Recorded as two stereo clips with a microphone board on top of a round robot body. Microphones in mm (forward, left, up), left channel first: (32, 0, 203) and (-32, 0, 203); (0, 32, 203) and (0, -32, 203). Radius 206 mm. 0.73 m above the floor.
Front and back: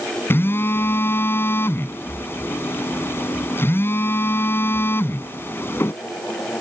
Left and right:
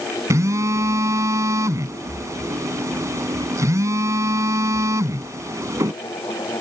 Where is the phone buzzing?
50° right.